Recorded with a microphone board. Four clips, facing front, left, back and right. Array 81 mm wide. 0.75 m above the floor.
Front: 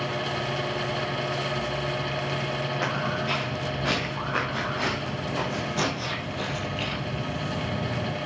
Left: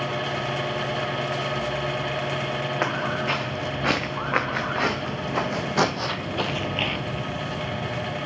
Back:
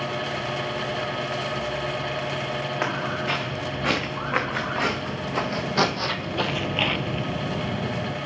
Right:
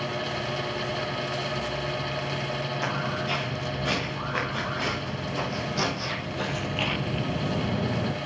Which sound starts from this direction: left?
Footsteps, at 2.8 s.